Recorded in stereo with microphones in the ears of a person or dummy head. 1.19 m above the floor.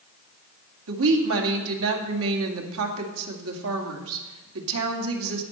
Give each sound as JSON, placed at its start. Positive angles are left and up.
{"t": 0.9, "sound": "a woman speaking", "side_deg": -80, "distance_m": 2.0}